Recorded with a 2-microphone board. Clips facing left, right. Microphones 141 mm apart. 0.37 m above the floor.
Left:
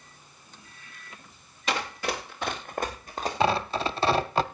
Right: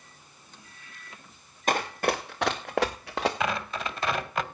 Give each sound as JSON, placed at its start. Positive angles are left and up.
{"t": 1.7, "sound": "running footsteps", "side_deg": -50, "distance_m": 2.5}
{"t": 3.4, "sound": "tearing paper", "side_deg": 30, "distance_m": 0.6}